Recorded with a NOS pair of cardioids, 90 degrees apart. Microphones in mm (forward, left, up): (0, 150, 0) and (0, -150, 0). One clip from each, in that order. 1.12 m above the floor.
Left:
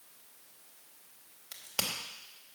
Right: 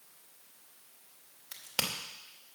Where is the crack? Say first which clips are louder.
Right 1 dB; 15° right, 2.5 m.